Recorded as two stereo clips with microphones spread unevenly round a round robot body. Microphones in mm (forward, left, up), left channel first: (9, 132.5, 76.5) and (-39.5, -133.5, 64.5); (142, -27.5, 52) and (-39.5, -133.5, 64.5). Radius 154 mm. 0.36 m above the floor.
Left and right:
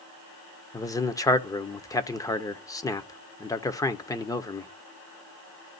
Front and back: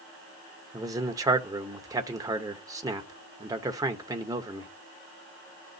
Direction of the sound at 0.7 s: 150° left.